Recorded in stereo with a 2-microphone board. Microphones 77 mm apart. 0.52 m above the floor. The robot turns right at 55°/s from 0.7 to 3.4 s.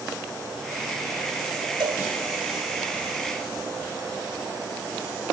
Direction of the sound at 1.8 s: 70° right (ahead or behind).